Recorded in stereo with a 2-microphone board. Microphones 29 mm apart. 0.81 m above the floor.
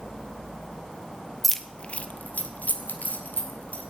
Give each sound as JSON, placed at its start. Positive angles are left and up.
{"t": 1.4, "sound": "keys jangling", "side_deg": 5, "distance_m": 0.8}